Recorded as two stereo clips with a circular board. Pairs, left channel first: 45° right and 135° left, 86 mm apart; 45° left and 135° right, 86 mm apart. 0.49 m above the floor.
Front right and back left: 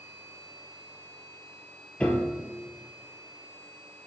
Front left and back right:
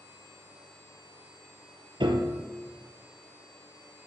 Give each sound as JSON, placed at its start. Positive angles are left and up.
{"t": 2.0, "sound": "a piano", "azimuth_deg": -125, "distance_m": 2.0}